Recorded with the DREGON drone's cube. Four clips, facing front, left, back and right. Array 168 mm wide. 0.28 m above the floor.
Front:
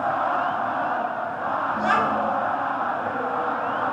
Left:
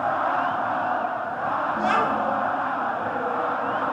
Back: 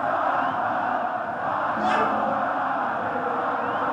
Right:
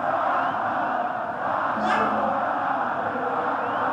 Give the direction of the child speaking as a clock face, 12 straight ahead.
11 o'clock.